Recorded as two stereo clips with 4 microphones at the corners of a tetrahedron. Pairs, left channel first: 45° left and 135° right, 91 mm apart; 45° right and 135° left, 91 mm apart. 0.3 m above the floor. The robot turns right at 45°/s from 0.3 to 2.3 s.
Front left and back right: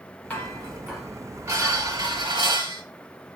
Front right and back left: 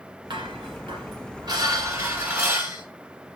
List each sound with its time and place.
0.3 s dishes clattering: 120° left, 1.8 m; by 2.8 s 150° right, 1.8 m